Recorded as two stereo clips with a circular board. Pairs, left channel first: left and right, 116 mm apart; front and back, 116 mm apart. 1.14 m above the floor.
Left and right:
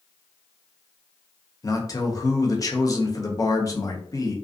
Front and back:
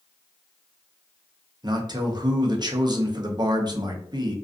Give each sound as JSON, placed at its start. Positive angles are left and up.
{"t": 1.6, "sound": "a man speaking", "azimuth_deg": 140, "distance_m": 0.5}